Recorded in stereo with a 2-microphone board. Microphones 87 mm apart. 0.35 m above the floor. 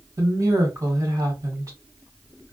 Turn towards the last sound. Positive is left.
turn(degrees=-40)  # may be behind; listen again after turning